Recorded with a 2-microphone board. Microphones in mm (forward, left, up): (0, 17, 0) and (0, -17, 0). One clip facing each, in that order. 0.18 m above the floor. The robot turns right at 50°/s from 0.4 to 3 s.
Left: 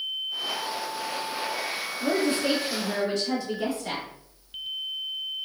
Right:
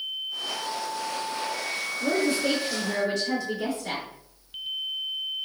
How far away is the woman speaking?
About 1.7 m.